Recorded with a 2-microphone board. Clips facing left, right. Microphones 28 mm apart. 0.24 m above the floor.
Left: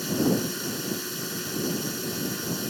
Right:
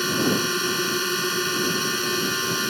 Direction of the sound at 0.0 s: 50° right (ahead or behind).